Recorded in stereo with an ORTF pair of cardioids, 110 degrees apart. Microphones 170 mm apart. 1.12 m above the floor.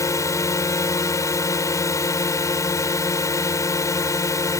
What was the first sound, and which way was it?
A drone, 20° left.